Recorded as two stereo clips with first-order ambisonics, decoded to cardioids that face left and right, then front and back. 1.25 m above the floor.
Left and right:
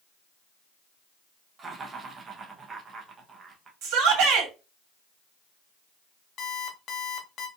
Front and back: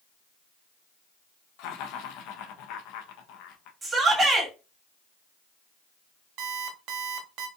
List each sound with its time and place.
1.6 s laughter: 20° right, 1.1 m
3.8 s a shout: 100° right, 2.5 m
6.4 s an alarm clock: 145° left, 1.0 m